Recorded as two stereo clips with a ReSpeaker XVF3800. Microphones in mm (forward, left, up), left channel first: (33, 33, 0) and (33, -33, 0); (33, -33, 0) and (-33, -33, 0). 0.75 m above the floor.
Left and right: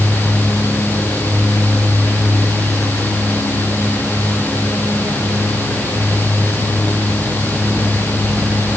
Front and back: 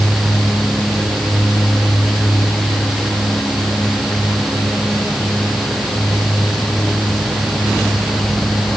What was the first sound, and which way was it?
Only background noise.